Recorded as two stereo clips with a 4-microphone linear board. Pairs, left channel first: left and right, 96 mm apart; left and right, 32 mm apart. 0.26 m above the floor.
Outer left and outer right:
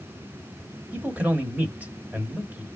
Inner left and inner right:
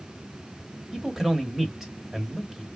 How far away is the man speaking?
About 1.4 m.